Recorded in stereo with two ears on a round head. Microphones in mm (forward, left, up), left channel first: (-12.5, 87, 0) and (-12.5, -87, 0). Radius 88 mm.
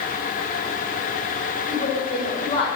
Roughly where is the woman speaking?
Left.